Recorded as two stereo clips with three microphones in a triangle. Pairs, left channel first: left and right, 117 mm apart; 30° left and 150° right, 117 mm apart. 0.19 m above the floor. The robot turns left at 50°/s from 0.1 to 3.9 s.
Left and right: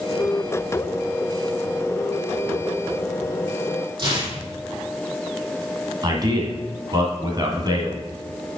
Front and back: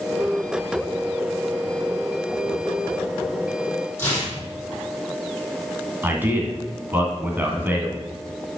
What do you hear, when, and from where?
4.0 s tearing paper: 40° right, 3.5 m
6.0 s a man speaking: 90° right, 1.8 m